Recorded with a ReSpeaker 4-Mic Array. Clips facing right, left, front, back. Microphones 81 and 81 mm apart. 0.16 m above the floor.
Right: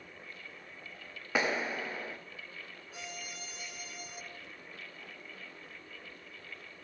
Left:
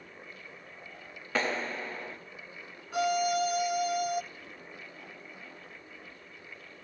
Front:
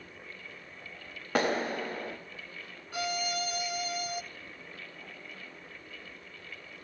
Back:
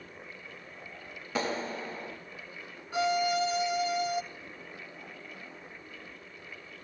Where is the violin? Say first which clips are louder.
Left 21 dB, back 7 dB; 115° left, 1.2 m.